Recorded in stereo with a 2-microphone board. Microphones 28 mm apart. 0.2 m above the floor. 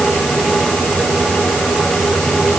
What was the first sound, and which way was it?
Only background noise.